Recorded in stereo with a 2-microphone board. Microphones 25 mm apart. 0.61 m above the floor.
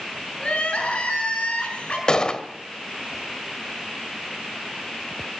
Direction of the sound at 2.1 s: 35° left (ahead or behind).